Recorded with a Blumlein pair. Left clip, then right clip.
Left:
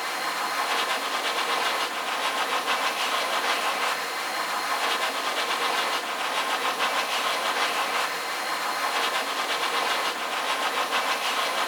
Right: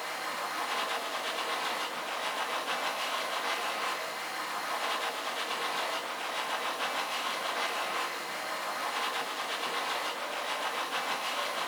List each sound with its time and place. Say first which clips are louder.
0.0 s a machine running: left 7 dB; 65° left, 1.9 m